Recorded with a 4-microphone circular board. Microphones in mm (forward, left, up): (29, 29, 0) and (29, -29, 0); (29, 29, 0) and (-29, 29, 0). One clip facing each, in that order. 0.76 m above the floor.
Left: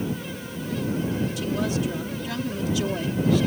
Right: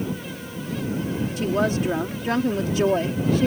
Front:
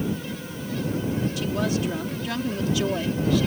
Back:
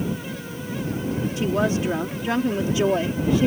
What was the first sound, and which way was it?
A woman speaking, 125° right.